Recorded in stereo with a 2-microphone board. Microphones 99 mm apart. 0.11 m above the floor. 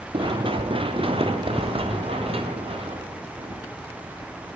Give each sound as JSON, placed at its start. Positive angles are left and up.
{"t": 0.1, "sound": "running footsteps", "side_deg": -60, "distance_m": 2.5}